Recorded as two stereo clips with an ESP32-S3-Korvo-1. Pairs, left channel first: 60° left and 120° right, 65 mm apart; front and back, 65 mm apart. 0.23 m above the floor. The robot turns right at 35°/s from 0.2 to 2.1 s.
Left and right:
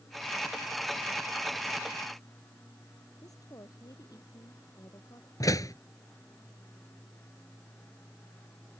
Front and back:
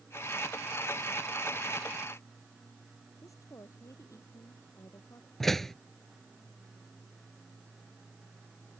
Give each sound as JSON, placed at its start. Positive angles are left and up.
{"t": 3.2, "sound": "a woman speaking", "azimuth_deg": 35}
{"t": 5.4, "sound": "a door slam", "azimuth_deg": 85}